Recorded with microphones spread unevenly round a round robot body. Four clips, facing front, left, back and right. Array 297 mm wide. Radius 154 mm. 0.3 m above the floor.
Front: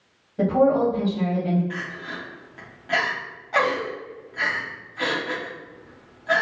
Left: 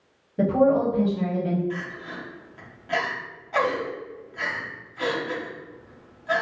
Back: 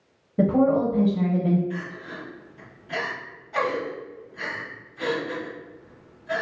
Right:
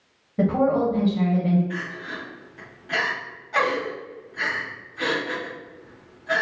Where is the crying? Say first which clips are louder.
Right 1 dB, front 1 dB; 10° left, 1.5 m.